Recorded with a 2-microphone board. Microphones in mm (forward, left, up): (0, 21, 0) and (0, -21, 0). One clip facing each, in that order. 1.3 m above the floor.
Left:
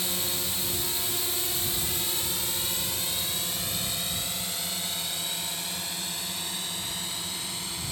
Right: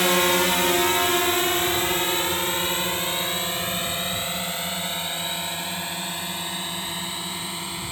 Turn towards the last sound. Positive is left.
turn(degrees=-30)  # may be behind; listen again after turning